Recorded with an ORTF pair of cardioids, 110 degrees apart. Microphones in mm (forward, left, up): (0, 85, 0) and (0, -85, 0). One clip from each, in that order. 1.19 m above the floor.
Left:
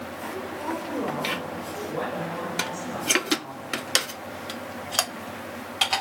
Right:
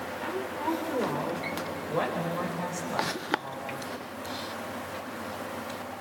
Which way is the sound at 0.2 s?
20° right.